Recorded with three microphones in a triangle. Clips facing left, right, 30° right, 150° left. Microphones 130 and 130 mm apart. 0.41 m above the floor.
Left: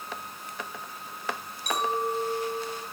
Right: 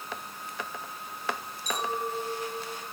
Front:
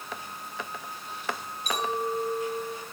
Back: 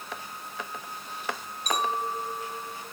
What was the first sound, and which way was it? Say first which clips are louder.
A clink: left 4 dB, even; 105° left.